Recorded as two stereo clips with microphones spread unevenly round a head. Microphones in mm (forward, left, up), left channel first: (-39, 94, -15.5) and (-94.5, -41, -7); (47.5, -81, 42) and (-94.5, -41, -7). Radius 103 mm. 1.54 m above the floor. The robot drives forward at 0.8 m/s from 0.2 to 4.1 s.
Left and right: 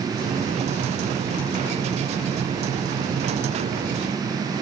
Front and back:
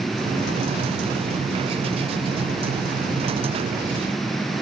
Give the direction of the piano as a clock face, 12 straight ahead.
No piano in this recording.